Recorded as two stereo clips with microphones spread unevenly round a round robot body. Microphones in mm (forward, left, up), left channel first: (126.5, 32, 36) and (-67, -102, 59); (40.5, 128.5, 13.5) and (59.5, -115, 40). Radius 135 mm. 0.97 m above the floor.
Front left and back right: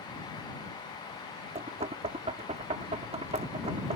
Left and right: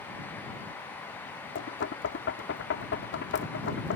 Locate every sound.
1.6 s knocking: 145° left